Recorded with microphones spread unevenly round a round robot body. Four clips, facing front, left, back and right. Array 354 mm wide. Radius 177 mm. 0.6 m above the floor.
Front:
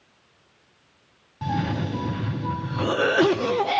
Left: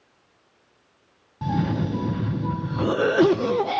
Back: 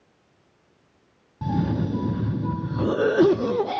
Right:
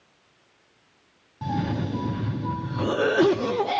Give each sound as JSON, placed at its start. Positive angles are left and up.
{"t": 1.4, "sound": "a cough", "azimuth_deg": 165, "distance_m": 0.6}